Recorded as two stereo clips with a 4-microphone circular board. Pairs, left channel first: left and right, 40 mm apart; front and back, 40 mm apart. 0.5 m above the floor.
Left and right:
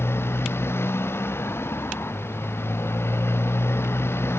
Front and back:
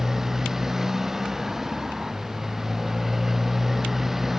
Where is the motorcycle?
100° left; by 4.4 s 95° left.